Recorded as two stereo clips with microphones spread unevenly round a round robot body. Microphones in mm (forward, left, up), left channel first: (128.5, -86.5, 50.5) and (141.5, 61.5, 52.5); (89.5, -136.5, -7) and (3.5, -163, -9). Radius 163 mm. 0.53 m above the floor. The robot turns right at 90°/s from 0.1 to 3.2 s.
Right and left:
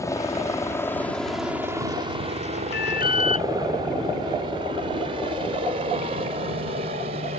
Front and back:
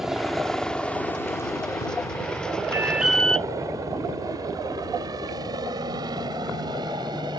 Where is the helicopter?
85° right; by 7.4 s 140° left.